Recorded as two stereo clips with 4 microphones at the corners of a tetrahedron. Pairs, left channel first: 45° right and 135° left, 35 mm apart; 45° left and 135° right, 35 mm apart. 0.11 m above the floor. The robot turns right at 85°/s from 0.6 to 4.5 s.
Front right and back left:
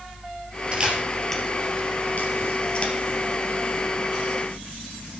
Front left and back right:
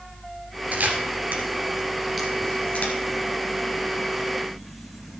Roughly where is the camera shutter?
Behind.